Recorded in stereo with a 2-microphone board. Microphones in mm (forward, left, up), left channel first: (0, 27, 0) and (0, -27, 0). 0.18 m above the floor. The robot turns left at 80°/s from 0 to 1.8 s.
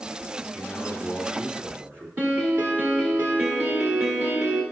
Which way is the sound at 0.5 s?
50° left.